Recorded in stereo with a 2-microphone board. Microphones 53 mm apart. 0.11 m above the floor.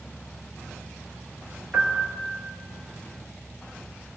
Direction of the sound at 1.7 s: 25° right (ahead or behind).